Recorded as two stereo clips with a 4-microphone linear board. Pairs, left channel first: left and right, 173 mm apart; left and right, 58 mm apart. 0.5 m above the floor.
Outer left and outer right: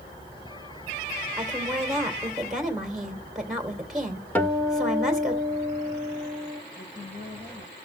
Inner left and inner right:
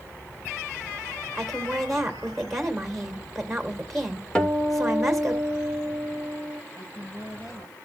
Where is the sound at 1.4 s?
Centre (ahead or behind), 2 m.